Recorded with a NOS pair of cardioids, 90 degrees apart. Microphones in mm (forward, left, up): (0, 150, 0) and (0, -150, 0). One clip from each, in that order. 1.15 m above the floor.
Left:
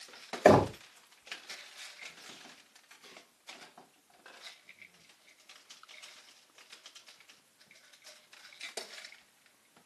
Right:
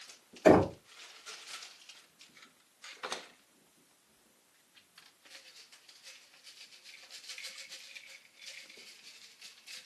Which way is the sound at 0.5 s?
60° left.